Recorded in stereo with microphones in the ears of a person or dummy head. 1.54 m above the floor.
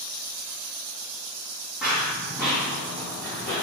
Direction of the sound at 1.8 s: Centre (ahead or behind).